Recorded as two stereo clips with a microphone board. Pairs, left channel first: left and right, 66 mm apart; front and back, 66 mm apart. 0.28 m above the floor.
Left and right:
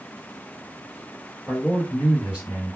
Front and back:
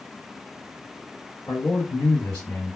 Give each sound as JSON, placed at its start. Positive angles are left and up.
{"t": 1.5, "sound": "a man speaking", "azimuth_deg": 10, "distance_m": 3.0}